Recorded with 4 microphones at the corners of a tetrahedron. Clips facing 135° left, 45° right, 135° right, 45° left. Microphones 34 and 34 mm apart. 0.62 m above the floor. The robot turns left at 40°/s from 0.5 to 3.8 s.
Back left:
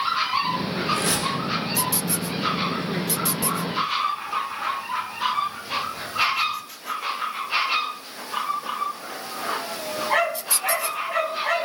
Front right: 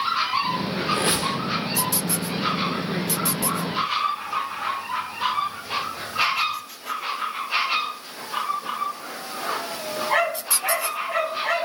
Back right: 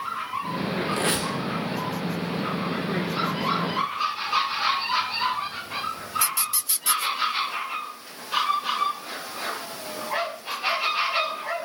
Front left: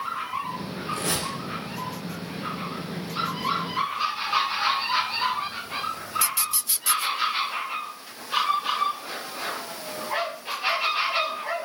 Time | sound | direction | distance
0.9 | a squeak | 95° right | 1.2 m